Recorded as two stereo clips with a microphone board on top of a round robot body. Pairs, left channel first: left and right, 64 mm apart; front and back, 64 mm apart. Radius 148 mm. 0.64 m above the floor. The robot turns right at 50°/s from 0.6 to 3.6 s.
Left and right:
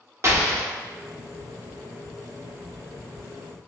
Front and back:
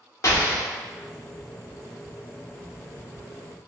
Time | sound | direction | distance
0.2 | an explosion | 40° right | 1.1 m